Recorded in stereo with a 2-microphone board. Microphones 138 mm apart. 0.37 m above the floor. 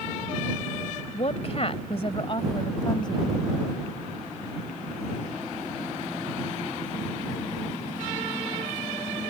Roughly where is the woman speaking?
Left.